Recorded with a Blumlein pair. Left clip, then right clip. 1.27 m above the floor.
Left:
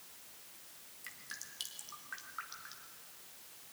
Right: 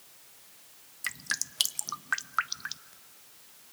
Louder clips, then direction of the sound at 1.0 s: Right 15 dB; 55° right.